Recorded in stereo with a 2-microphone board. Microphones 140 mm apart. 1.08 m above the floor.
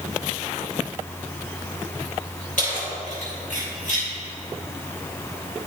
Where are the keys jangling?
70° left (ahead or behind), 3 m; by 4.1 s 65° left (ahead or behind), 5 m.